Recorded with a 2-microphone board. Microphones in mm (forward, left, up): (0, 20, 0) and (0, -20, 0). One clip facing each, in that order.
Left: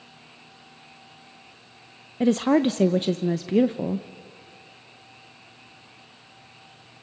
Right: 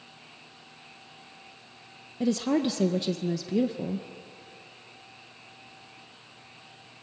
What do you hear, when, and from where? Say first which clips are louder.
2.2 s a woman speaking: left 6 dB; 45° left (ahead or behind), 0.5 m